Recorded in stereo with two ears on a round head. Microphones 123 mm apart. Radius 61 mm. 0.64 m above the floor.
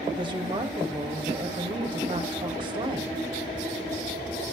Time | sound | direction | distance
0.1 | a woman speaking | 40° right (ahead or behind) | 3 m